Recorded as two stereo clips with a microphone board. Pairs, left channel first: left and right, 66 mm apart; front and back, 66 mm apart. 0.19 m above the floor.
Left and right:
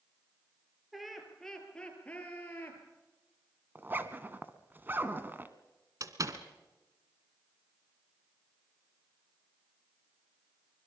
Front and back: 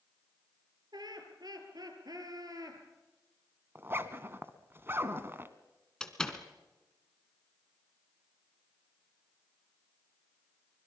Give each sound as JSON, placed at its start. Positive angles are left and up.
{"t": 0.9, "sound": "laughter", "azimuth_deg": 180, "distance_m": 5.0}
{"t": 3.8, "sound": "a zipper", "azimuth_deg": -135, "distance_m": 1.3}
{"t": 6.0, "sound": "a door slam", "azimuth_deg": -75, "distance_m": 1.7}